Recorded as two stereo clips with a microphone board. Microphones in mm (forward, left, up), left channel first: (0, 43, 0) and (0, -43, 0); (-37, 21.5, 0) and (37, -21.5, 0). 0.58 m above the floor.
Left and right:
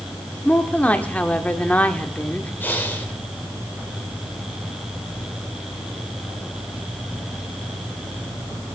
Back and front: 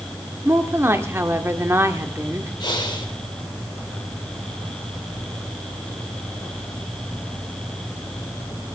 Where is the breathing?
155° left, 2.5 m.